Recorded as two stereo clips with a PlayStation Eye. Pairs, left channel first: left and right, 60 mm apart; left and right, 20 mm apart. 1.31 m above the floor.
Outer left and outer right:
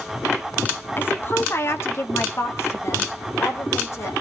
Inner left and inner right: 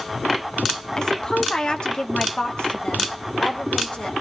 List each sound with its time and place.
1.0 s a woman speaking: 35° left (ahead or behind), 0.9 m; by 4.2 s 50° left (ahead or behind), 4.5 m